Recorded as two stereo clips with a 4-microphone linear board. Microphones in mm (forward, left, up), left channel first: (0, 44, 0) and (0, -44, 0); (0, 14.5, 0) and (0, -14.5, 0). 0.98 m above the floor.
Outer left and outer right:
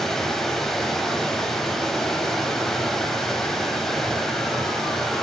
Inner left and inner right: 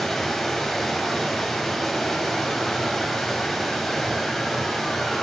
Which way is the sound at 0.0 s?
5° left (ahead or behind).